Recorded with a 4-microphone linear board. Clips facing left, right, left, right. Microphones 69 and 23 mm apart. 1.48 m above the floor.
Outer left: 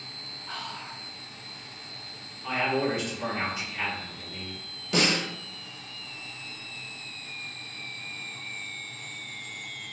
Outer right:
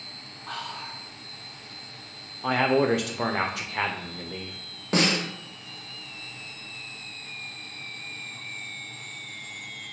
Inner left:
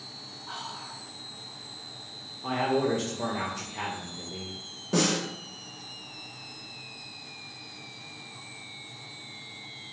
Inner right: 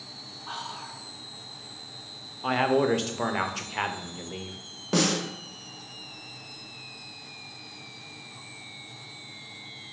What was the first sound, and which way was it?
Whispering, 60° right (ahead or behind).